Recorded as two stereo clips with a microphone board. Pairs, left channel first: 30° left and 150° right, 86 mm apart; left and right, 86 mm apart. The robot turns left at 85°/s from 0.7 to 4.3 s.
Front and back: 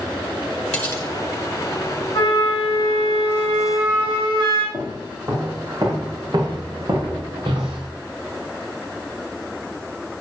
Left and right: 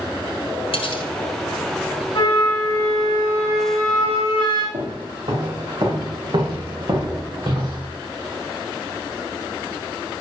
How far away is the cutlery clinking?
About 1.8 m.